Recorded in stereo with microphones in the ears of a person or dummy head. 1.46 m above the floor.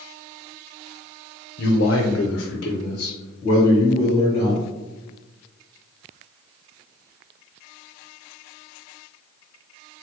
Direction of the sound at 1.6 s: 50° left (ahead or behind).